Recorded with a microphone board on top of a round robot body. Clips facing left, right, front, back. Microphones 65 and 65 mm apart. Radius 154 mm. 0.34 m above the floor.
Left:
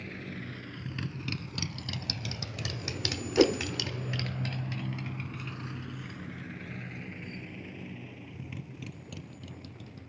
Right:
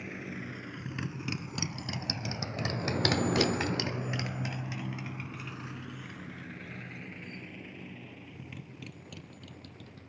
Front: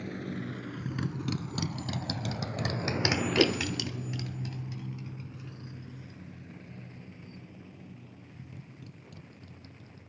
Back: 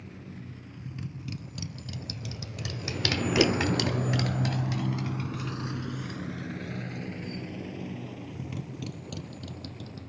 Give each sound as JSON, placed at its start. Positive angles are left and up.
{"t": 0.0, "sound": "a motorcycle", "azimuth_deg": -15}
{"t": 3.4, "sound": "a whoosh", "azimuth_deg": 75}